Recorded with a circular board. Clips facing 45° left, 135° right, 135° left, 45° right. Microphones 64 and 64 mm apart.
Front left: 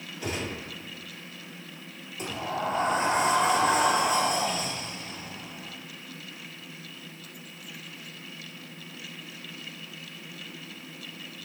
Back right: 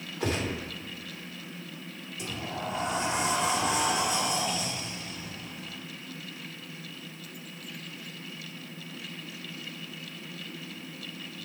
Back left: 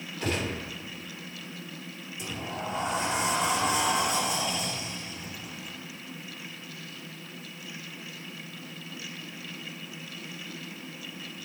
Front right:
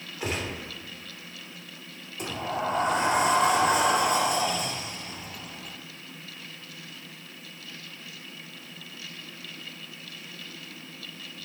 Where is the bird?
I don't hear a bird.